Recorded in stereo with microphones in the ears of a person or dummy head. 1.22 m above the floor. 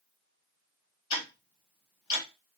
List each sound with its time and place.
1.1 s ticking: 25° left (ahead or behind), 1.3 m